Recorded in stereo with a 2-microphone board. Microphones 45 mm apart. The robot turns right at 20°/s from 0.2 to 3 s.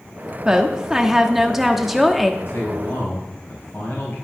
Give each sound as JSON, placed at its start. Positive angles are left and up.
{"t": 0.5, "sound": "a woman speaking", "side_deg": -15, "distance_m": 1.1}
{"t": 2.4, "sound": "a man speaking", "side_deg": 50, "distance_m": 4.5}